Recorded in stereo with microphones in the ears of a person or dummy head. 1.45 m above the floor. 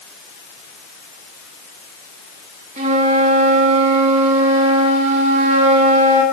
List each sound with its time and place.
2.8 s a flute: 40° right (ahead or behind), 1.4 m